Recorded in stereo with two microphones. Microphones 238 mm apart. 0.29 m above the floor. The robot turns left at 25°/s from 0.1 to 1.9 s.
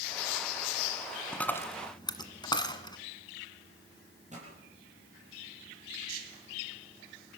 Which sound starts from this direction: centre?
A dropped coin, at 1.3 s.